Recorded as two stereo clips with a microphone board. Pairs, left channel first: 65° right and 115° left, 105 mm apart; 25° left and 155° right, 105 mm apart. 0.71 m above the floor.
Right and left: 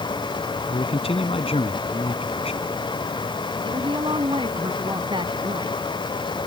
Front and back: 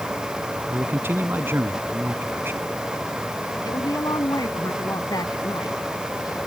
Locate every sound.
0.7 s a man speaking: 90° right
3.6 s a woman speaking: 75° left